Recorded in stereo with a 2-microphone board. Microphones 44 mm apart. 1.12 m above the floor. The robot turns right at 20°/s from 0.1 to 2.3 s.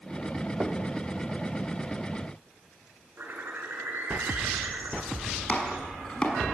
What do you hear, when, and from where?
0.6 s knocking: 35° right (ahead or behind), 2.5 m; by 0.8 s 40° right (ahead or behind), 2.5 m
3.2 s a bird: 50° right (ahead or behind), 5.5 m
5.5 s chopping: 20° left (ahead or behind), 5.5 m